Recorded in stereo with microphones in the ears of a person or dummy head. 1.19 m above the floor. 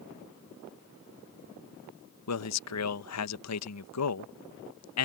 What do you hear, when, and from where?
2.3 s a man speaking: 75° left (ahead or behind)